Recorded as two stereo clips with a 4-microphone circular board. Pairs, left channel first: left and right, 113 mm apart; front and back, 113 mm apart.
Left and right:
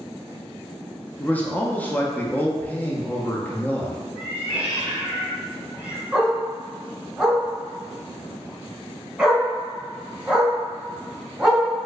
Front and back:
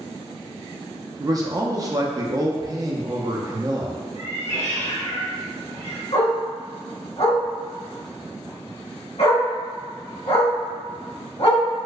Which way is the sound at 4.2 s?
10° right.